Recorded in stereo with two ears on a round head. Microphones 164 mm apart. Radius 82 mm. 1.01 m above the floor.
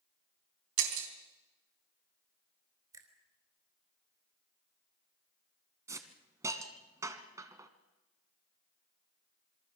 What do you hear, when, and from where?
0.8 s breaking glass: 80° right, 3.5 m
2.9 s a finger snap: 20° right (ahead or behind), 4 m
5.9 s a hiss: 15° right (ahead or behind), 1.6 m